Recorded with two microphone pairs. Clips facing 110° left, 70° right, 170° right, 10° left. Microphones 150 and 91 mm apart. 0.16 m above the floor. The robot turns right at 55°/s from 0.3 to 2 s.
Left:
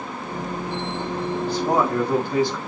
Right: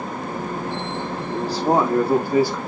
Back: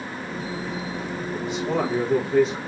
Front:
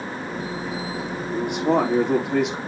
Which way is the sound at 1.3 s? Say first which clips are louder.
Right 2 dB, front 5 dB; 25° right.